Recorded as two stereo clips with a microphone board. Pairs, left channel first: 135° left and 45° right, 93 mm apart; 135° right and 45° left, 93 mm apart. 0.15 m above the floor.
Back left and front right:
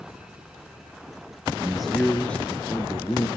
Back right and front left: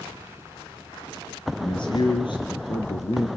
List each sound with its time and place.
1.6 s a man speaking: 125° right, 2 m; by 3.3 s 165° right, 3 m